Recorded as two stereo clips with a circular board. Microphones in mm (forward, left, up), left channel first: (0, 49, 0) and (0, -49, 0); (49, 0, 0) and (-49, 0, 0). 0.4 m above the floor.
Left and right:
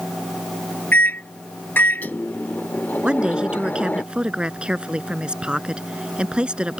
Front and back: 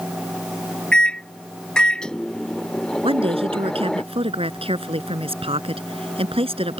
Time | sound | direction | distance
0.9 | a microwave | 60° left | ?
3.0 | a woman speaking | 170° right | ?